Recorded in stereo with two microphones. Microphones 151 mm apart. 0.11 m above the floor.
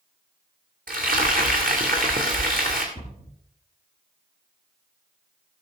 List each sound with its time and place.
0.9 s frying: 70° right (ahead or behind), 2 m
3.0 s a cupboard door: 50° right (ahead or behind), 4.5 m